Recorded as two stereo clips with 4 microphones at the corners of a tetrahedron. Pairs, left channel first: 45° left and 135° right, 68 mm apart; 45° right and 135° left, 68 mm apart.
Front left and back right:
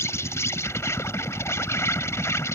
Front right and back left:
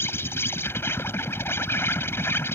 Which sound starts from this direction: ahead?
An insect, at 0.0 s.